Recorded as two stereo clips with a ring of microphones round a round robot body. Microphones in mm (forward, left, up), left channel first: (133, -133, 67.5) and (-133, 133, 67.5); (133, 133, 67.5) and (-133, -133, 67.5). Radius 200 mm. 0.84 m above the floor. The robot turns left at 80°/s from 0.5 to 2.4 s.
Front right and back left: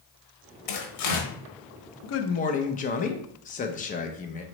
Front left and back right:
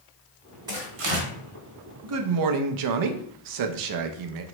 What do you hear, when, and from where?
0.7 s tearing paper: 55° right, 0.8 m; by 1.3 s 105° right, 0.8 m
2.0 s a man speaking: 85° right, 0.5 m; by 4.4 s 110° right, 0.5 m